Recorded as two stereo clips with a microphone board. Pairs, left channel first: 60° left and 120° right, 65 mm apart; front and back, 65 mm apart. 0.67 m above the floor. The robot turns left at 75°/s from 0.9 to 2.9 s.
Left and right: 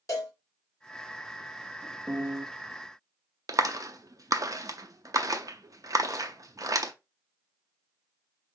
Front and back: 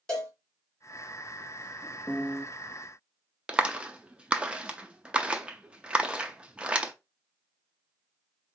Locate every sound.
0.1 s a cowbell: 75° left, 2.0 m
2.1 s a piano: 60° right, 0.7 m; by 2.5 s 90° right, 0.7 m
3.5 s a clap: 110° right, 0.6 m